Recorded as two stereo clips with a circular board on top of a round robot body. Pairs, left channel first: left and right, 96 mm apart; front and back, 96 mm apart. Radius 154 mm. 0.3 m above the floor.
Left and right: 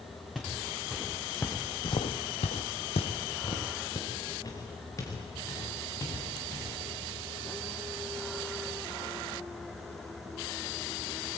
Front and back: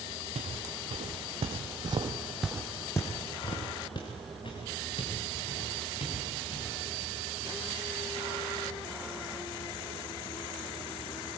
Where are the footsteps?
175° left, 3 m; by 6.7 s 30° left, 7 m.